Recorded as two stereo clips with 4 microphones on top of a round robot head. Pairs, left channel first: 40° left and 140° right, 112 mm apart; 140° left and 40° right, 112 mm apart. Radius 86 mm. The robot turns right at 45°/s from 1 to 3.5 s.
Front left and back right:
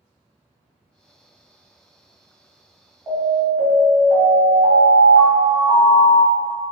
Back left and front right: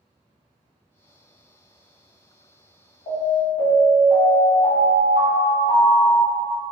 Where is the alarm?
150° left, 1.5 m; by 6.5 s 170° left, 1.5 m.